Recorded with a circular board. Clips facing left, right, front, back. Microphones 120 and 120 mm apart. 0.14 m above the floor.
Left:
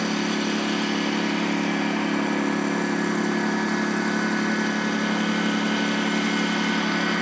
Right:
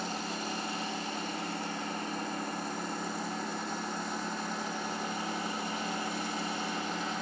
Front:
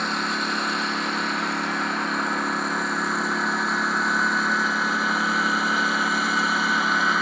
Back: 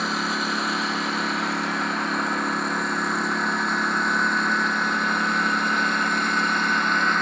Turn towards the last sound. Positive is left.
turn(degrees=85)